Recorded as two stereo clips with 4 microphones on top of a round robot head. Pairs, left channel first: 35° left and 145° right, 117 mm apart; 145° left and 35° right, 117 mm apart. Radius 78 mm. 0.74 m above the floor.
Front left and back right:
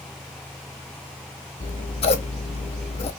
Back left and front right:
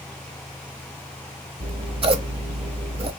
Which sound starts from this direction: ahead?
Scissors, at 1.6 s.